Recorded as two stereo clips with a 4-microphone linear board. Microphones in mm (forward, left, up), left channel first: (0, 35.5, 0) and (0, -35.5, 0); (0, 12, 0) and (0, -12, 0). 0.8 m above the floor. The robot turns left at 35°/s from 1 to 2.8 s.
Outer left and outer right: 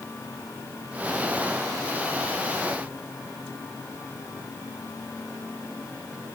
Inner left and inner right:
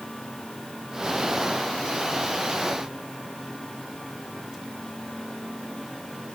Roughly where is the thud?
I don't hear a thud.